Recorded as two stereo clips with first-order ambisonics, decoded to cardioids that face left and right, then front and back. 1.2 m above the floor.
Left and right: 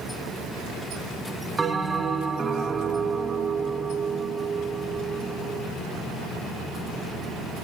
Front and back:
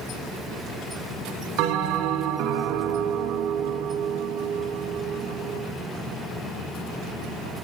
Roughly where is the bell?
Behind.